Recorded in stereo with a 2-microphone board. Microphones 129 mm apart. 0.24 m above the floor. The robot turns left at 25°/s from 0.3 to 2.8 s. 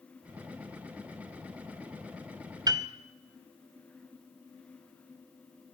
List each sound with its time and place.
2.7 s a piano: 30° right (ahead or behind), 0.9 m